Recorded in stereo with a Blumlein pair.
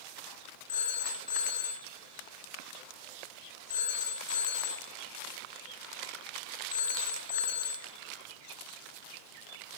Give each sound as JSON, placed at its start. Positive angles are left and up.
{"t": 0.7, "sound": "a phone ringing", "azimuth_deg": 55, "distance_m": 2.5}